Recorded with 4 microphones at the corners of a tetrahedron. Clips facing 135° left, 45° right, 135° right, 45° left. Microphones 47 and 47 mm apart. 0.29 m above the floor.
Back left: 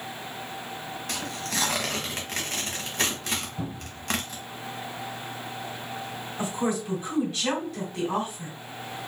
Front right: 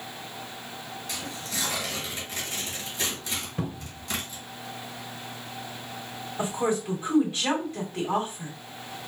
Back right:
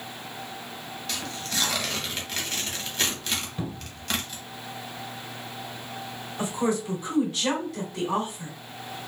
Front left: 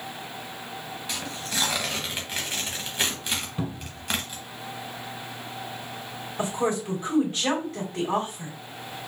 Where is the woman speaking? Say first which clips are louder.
Front right 1 dB, even; 10° left, 2.0 m.